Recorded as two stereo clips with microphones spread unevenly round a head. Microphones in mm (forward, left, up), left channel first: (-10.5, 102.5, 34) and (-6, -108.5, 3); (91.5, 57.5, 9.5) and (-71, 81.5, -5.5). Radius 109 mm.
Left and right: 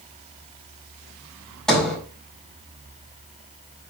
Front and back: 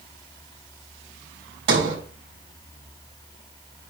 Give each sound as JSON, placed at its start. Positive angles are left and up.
{"t": 1.7, "sound": "a sliding door", "azimuth_deg": 180, "distance_m": 4.0}